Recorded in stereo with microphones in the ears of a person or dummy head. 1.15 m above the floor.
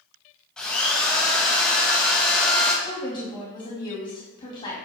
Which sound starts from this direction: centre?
A drill, at 0.6 s.